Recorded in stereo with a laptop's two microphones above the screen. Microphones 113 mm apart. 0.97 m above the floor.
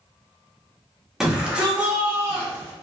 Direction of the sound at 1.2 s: 5° right (ahead or behind).